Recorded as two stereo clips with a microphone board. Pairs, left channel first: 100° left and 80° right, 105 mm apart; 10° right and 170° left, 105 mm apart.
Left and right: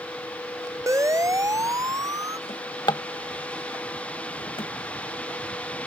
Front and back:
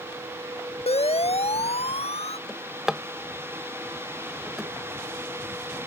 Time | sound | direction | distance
0.9 | a siren | 20° right | ?
2.5 | a drawer | 85° left | ?